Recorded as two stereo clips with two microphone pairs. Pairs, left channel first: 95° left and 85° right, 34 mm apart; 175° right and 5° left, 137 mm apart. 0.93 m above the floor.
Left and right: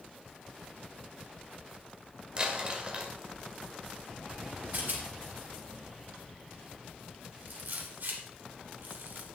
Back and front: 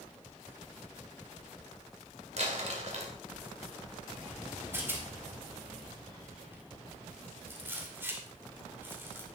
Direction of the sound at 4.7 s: 65° right.